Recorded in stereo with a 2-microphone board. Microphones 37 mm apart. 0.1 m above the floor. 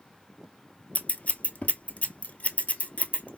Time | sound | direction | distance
0.9 | scissors | 40° left (ahead or behind) | 0.6 m